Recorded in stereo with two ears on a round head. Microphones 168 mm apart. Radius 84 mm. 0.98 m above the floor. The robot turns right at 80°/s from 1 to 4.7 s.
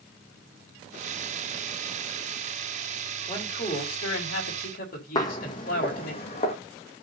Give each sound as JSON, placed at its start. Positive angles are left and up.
{"t": 3.3, "sound": "a man speaking", "azimuth_deg": 15, "distance_m": 4.0}
{"t": 5.2, "sound": "footsteps", "side_deg": 20, "distance_m": 2.0}